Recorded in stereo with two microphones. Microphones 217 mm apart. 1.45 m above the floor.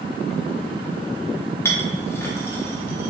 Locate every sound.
1.6 s a clink: 10° left (ahead or behind), 0.8 m